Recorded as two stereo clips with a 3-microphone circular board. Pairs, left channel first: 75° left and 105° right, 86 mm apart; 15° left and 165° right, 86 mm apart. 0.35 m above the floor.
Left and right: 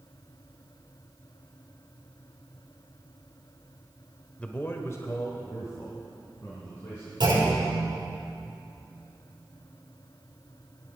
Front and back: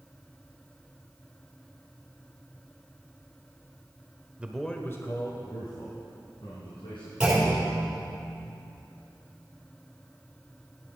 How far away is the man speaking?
About 0.9 m.